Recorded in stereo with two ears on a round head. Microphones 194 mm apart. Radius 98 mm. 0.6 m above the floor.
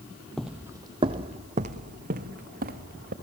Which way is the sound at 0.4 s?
5° left (ahead or behind).